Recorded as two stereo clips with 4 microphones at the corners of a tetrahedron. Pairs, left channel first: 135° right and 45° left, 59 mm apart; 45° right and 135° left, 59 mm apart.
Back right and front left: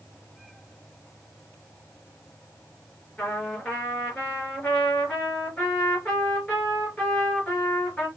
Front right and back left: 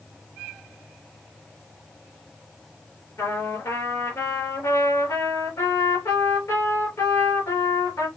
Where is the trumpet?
65° right, 3.5 m.